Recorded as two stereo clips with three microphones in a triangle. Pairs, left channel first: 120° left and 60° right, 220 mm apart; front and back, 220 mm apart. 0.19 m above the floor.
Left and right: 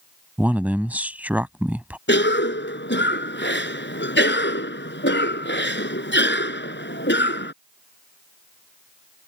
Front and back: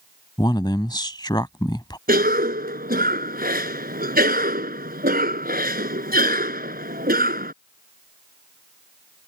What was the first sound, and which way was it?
A man speaking, 10° left.